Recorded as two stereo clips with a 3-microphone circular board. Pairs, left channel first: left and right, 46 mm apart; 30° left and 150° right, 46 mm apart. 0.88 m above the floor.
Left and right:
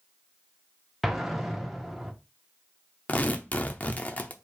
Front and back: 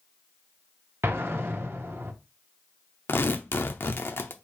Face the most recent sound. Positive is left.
turn(degrees=45)